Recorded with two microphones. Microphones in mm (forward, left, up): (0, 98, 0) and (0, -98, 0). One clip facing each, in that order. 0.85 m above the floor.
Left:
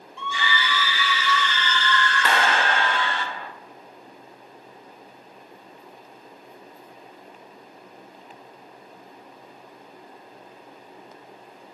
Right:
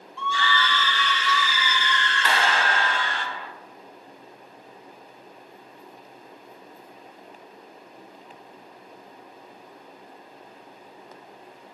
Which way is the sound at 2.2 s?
50° left (ahead or behind).